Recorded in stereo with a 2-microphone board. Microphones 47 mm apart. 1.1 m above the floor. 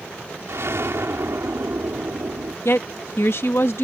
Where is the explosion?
70° right (ahead or behind).